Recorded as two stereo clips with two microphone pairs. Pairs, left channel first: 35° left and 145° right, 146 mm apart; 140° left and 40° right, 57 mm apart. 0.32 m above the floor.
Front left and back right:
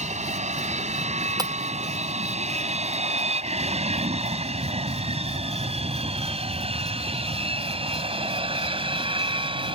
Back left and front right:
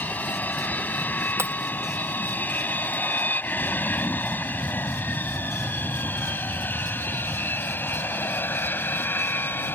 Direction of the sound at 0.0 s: 165° right.